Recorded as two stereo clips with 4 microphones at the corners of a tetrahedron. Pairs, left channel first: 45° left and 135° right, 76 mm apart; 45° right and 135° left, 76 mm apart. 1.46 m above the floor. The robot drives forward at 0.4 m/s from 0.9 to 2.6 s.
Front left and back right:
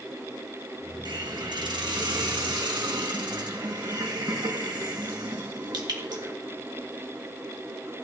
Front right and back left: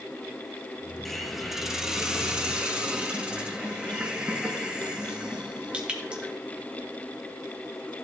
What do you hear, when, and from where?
1.1 s a hiss: 135° right, 1.2 m; by 6.3 s 150° right, 1.7 m